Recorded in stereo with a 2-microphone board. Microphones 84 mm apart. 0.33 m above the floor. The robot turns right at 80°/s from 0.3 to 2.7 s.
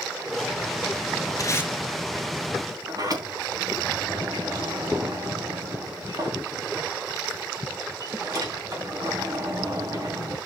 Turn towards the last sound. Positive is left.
turn(degrees=-45)  # may be behind; listen again after turning